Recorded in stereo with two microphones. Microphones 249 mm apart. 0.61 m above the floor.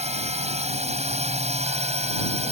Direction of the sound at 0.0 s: 25° right (ahead or behind).